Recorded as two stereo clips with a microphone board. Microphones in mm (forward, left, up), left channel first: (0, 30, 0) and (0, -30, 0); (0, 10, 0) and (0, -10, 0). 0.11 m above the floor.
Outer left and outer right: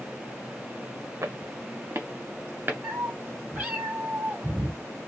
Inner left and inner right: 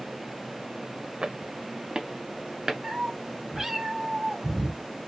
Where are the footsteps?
50° right (ahead or behind), 0.6 m; by 2.7 s 35° right (ahead or behind), 1.4 m.